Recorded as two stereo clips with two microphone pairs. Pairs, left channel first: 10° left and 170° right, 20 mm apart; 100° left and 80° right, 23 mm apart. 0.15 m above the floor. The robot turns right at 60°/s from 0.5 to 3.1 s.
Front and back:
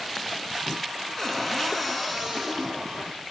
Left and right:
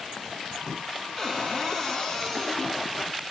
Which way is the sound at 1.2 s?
50° left.